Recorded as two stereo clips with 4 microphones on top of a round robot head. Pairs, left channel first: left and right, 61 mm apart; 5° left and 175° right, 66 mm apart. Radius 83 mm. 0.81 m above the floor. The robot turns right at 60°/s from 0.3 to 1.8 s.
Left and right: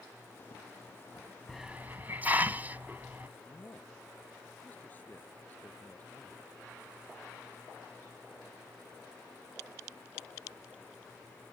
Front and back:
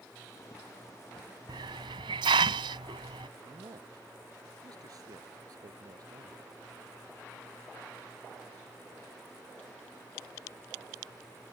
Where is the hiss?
Straight behind; by 3.3 s 160° right.